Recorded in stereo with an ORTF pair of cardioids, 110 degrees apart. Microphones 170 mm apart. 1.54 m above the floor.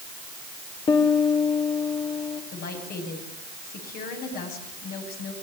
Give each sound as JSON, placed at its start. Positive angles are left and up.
{"t": 0.9, "sound": "a piano", "azimuth_deg": 35, "distance_m": 3.0}
{"t": 2.5, "sound": "a woman speaking", "azimuth_deg": 60, "distance_m": 9.5}